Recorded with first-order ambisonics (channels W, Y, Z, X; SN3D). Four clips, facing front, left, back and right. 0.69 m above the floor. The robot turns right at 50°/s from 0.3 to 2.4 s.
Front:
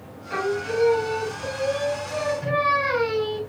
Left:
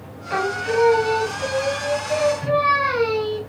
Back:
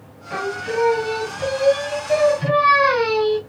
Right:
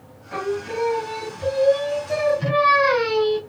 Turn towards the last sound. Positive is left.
turn(degrees=-160)